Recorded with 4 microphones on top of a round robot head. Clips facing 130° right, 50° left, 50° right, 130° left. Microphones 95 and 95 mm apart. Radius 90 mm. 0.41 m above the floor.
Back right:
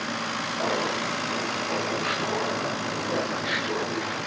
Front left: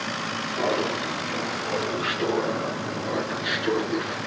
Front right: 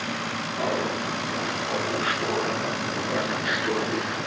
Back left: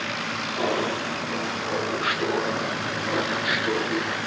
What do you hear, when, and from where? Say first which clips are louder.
0.6 s laughter: front left 3 dB, back left 2 dB; 70° left, 6.5 m; by 4.2 s 40° left, 5 m